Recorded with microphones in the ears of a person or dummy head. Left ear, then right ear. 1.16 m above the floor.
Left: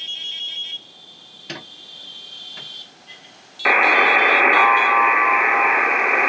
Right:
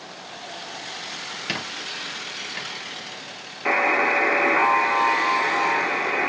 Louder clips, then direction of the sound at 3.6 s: Left 6 dB; 45° left (ahead or behind).